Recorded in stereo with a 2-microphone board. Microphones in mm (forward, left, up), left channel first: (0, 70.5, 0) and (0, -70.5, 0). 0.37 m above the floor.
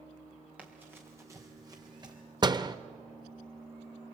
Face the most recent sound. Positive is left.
turn(degrees=-30)  # may be behind; listen again after turning